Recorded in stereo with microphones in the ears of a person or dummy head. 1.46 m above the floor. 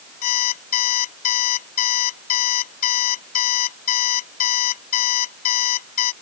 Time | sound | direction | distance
0.2 | an alarm clock | 50° left (ahead or behind) | ?